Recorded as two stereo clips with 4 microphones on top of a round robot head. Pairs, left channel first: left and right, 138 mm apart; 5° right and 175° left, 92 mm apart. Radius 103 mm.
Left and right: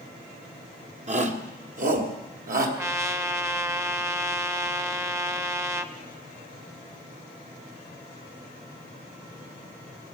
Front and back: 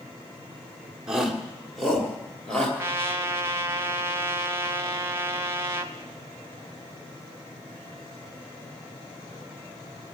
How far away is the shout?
About 1.6 m.